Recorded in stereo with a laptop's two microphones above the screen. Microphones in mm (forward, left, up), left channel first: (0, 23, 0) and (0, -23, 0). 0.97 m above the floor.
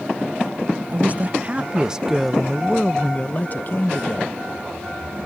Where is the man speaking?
40° right (ahead or behind); by 4.3 s 55° left (ahead or behind).